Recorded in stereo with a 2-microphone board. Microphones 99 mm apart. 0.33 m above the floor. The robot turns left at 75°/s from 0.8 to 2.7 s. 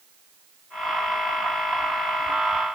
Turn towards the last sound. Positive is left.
No sound to turn to.